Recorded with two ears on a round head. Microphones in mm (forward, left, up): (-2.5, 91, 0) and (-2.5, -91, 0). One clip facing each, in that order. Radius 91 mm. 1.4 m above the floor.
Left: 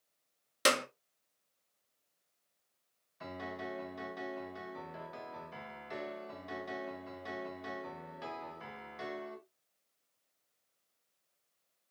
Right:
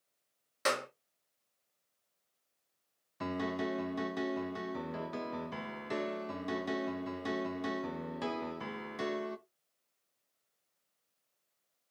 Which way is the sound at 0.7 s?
45° left (ahead or behind).